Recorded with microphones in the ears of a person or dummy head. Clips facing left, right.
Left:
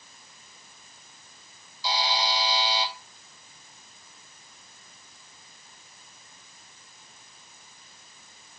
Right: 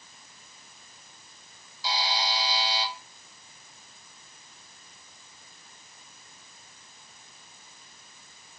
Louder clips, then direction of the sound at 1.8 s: Left 2 dB; 85° left.